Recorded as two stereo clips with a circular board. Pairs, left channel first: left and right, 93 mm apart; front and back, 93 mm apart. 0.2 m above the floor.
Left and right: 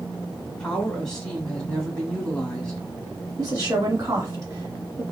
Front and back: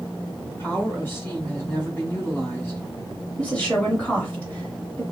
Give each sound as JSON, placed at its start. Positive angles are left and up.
{"t": 0.5, "sound": "a woman speaking", "azimuth_deg": 15, "distance_m": 1.5}
{"t": 3.4, "sound": "a woman speaking", "azimuth_deg": -70, "distance_m": 1.6}